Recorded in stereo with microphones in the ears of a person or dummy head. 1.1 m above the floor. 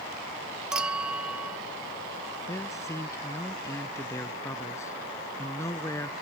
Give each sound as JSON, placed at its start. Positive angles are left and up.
{"t": 0.7, "sound": "a clink", "side_deg": -10}
{"t": 2.5, "sound": "a man speaking", "side_deg": 15}